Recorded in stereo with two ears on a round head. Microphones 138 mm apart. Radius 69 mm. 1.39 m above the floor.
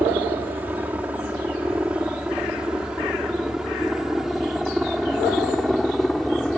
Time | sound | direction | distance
0.0 | a helicopter | 10° right (ahead or behind) | ?